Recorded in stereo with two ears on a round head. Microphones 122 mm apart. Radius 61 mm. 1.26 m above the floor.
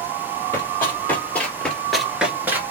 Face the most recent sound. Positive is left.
turn(degrees=-20)  # may be behind; listen again after turning